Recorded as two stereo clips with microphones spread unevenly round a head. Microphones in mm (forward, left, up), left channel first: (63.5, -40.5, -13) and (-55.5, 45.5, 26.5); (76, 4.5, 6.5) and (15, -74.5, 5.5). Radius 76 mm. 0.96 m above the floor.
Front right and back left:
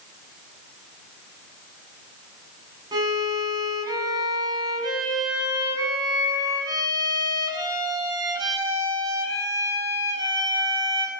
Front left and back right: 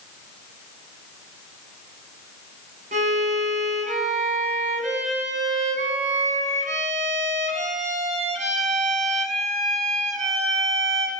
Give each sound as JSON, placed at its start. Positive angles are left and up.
{"t": 2.9, "sound": "a violin", "azimuth_deg": -150, "distance_m": 6.5}